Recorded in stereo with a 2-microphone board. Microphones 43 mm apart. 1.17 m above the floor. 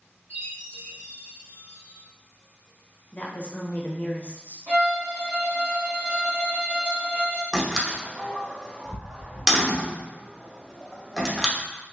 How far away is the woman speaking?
About 0.6 m.